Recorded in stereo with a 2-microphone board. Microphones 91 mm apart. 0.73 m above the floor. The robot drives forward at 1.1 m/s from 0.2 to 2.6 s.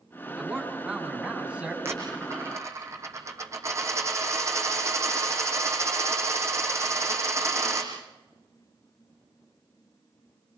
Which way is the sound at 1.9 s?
25° right (ahead or behind).